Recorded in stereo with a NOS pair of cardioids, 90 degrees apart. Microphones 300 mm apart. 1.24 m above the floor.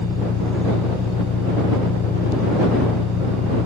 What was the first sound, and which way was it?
An engine running, 60° left.